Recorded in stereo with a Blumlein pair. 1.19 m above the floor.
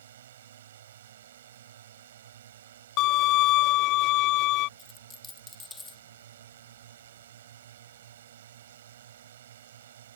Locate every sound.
0.0 s a drone: 60° right
3.0 s a violin: 40° left
4.8 s a dropped coin: 15° left